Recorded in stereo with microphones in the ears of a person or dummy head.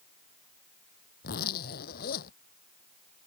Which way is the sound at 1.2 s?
55° left (ahead or behind).